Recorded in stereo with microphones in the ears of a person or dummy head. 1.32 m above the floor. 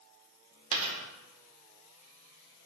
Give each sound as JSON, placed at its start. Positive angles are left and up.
{"t": 0.7, "sound": "a dropped coin", "side_deg": -40, "distance_m": 1.1}